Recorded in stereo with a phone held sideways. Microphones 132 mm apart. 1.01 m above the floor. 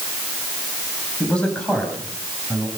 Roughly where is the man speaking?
Centre.